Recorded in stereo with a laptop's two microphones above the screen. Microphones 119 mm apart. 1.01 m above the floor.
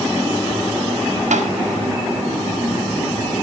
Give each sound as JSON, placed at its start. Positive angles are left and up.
{"t": 1.3, "sound": "tapping", "side_deg": -75, "distance_m": 1.8}